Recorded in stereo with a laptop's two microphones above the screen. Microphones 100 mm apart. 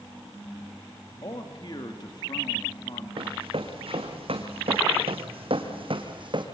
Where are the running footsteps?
65° right (ahead or behind), 3 m; by 6.5 s 50° right (ahead or behind), 2 m.